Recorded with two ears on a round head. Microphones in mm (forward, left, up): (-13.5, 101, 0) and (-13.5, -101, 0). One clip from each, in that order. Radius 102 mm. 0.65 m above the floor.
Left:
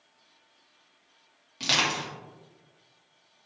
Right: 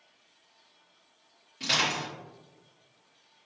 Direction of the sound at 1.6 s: 35° left (ahead or behind).